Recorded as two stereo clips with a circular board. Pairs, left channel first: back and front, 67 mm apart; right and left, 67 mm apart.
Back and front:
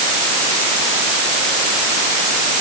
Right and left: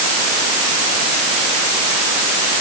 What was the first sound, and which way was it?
Only background noise.